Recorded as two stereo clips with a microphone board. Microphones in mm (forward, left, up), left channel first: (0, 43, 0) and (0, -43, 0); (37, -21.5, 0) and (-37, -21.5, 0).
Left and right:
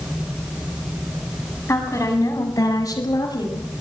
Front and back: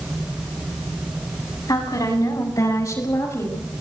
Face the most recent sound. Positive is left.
turn(degrees=55)